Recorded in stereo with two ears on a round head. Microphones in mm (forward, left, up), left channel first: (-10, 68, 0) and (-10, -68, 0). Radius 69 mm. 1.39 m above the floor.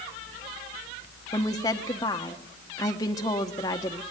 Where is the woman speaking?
25° left (ahead or behind), 1.0 m.